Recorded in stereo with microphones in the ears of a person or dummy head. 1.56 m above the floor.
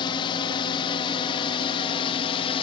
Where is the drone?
25° left (ahead or behind).